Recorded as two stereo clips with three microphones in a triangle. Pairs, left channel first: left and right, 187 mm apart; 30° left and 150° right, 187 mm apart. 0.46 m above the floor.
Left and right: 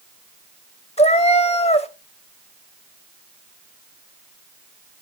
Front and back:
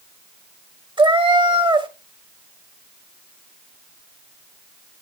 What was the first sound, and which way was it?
A cat meowing, 150° left.